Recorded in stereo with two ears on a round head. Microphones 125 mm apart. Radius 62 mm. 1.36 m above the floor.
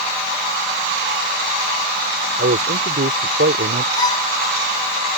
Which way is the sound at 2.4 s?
90° right.